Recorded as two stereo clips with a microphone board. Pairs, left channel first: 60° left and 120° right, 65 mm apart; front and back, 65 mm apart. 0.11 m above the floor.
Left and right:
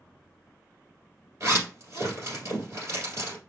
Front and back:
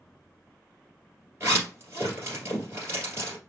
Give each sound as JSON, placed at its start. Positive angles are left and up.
{"t": 1.4, "sound": "a zipper", "azimuth_deg": -145, "distance_m": 2.5}